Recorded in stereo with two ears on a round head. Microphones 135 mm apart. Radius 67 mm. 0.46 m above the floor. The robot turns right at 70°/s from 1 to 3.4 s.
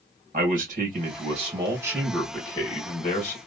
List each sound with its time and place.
0.3 s a man speaking: 80° right, 2.5 m; by 3.4 s 85° left, 2.5 m